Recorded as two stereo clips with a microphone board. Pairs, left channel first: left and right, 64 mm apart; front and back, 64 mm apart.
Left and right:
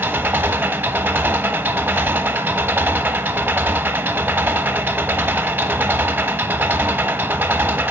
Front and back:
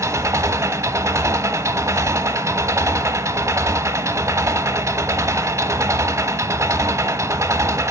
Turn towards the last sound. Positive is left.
turn(degrees=-145)